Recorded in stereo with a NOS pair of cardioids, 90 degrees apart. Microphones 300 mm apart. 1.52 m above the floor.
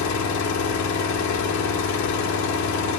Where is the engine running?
70° left, 1.2 m.